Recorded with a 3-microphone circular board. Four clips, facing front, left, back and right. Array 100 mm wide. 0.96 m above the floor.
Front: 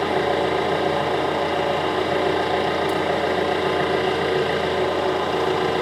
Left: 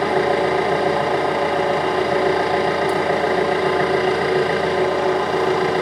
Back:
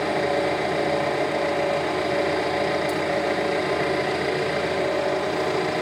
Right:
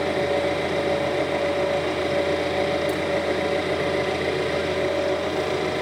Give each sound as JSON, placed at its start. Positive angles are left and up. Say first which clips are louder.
{"t": 0.0, "sound": "an engine running", "louder": "left 5 dB, front 2 dB", "azimuth_deg": 75, "distance_m": 6.5}